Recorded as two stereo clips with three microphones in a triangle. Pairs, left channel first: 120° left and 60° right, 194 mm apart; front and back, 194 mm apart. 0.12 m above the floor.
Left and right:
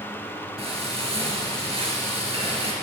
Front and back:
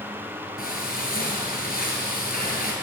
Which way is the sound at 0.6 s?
10° right.